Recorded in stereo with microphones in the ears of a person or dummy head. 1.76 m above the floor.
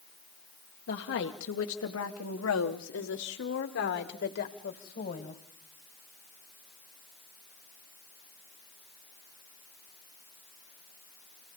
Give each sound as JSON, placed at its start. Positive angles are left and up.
{"t": 0.9, "sound": "a woman speaking", "side_deg": 60, "distance_m": 1.9}